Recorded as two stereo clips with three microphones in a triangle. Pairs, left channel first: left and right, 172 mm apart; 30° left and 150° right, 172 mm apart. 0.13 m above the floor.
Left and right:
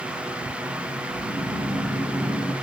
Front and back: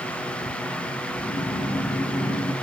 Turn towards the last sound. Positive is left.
turn(degrees=-5)